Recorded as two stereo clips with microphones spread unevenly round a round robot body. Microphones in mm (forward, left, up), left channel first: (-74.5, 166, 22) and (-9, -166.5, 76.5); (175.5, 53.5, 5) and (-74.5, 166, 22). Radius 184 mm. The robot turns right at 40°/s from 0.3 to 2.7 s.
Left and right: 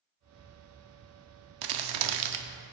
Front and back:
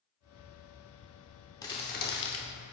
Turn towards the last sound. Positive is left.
turn(degrees=-60)